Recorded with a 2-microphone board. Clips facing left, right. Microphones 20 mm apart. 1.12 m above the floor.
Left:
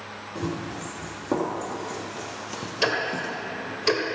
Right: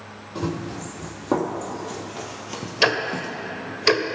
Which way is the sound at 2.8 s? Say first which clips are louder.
Right 4 dB; 35° right (ahead or behind).